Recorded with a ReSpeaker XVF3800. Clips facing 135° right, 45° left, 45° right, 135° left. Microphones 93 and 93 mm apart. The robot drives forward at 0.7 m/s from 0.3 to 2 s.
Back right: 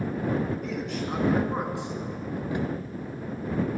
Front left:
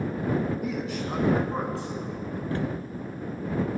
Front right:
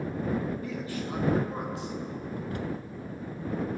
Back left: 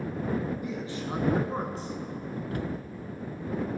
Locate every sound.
0.6 s a man speaking: 110° left, 1.1 m; by 2.4 s 165° left, 1.6 m
2.5 s a cupboard door: 155° left, 0.5 m